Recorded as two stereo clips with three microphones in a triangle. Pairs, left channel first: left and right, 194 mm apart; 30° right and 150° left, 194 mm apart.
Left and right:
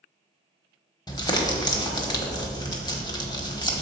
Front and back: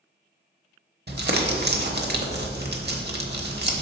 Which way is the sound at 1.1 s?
155° left.